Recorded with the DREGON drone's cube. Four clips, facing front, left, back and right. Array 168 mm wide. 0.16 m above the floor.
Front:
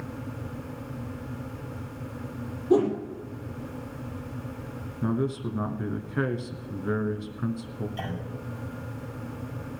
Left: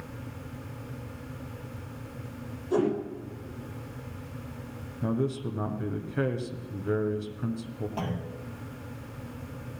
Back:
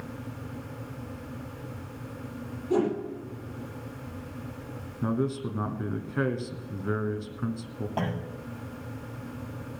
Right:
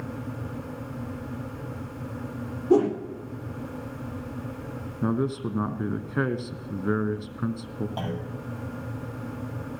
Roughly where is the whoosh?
Right.